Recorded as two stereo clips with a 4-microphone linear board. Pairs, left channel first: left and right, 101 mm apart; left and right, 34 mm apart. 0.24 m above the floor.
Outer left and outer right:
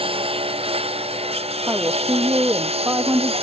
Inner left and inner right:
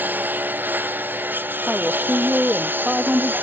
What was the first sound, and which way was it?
A lawn mower, 65° right (ahead or behind).